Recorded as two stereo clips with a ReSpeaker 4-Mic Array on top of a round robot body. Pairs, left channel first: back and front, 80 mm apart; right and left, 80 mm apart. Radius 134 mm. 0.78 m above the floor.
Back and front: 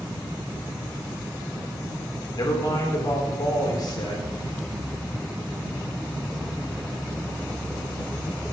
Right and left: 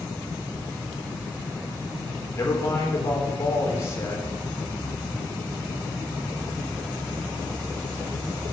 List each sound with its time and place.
2.3 s a man speaking: 145° right, 3.5 m